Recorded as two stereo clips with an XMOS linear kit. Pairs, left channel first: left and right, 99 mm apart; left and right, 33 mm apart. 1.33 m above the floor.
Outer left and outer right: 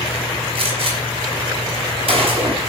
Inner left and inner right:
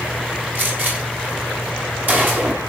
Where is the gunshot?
65° right (ahead or behind), 6 m.